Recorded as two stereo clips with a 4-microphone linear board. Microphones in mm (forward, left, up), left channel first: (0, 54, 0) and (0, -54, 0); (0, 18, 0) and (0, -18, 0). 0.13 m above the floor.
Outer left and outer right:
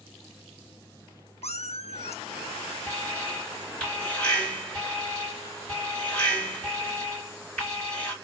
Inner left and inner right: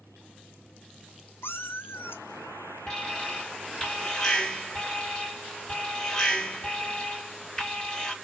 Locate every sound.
1.4 s a cat meowing: 80° left, 0.6 m
2.9 s an alarm: 10° left (ahead or behind), 2 m